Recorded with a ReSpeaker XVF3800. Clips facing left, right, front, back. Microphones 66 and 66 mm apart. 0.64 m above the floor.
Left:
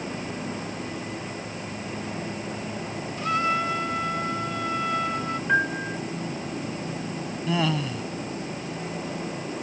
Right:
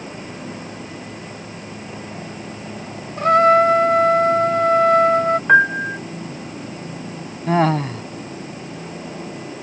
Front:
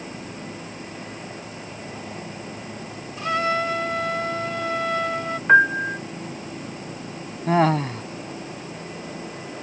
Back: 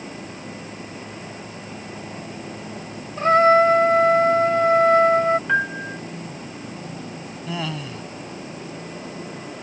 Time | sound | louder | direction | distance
3.2 | a trumpet | right 13 dB, back 9 dB | 125° right | ?
5.5 | a piano | right 9 dB, front 6 dB | 55° right | ?
7.5 | laughter | right 9 dB, front 11 dB | 45° right | ?